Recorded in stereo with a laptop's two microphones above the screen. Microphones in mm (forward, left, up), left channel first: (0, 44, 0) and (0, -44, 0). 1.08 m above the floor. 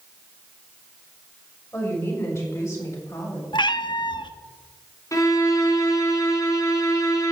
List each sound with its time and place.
1.7 s a woman speaking: 30° left (ahead or behind), 6.5 m; by 3.4 s 40° left (ahead or behind), 6.5 m
3.5 s a cat meowing: 65° left (ahead or behind), 0.7 m
5.1 s a violin: 40° left (ahead or behind), 2.5 m